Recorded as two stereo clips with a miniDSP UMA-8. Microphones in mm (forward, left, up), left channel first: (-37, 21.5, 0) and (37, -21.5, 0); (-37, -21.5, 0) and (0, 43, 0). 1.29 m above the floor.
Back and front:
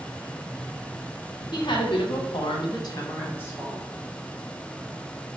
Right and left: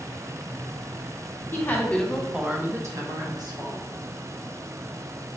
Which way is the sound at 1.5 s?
Straight behind.